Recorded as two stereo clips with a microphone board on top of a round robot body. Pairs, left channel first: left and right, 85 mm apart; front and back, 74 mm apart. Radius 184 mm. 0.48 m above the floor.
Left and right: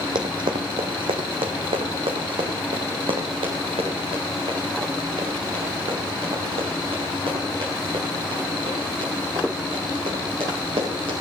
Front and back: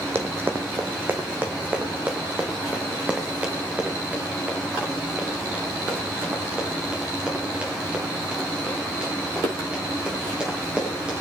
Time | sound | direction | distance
0.1 | running footsteps | 120° right | 1.1 m